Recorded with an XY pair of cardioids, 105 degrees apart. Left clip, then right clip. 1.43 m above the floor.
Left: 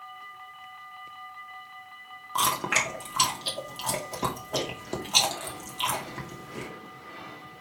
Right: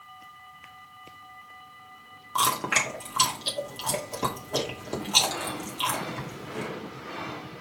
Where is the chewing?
5° left, 2.5 m.